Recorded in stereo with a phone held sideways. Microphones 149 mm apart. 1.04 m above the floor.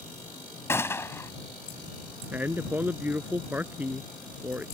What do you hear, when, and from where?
0.7 s a gunshot: 15° left (ahead or behind)
2.3 s a man speaking: 10° right (ahead or behind)